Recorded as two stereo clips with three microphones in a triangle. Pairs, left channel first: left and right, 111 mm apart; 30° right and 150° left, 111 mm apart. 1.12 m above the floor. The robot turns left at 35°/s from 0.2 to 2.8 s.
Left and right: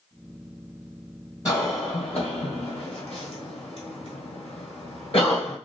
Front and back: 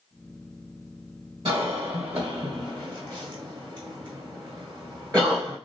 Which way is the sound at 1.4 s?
140° left.